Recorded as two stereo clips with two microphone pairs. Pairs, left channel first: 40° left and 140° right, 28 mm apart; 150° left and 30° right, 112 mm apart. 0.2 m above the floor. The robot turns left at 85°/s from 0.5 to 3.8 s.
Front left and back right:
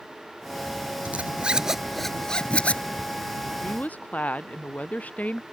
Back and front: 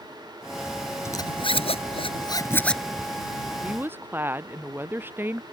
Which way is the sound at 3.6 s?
55° left.